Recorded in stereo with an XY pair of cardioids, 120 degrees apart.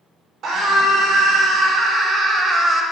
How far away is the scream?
About 4 m.